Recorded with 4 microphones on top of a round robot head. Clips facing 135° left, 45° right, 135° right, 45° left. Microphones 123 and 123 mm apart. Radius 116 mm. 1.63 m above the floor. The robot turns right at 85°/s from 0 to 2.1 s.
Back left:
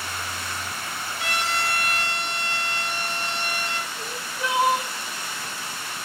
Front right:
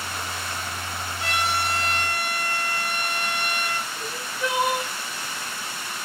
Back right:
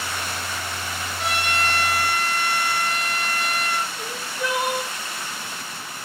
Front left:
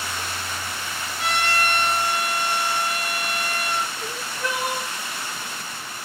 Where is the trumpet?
125° left, 7 m; by 3.9 s 155° right, 7 m.